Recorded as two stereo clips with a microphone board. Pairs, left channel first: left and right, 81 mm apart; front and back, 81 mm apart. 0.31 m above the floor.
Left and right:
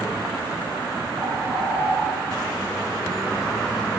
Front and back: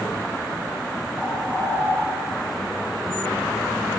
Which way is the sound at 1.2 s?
50° left.